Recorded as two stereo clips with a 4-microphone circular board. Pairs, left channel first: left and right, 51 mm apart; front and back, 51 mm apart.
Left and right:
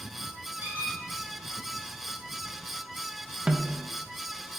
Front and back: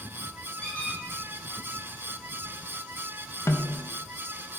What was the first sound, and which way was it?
A squeak, 60° right.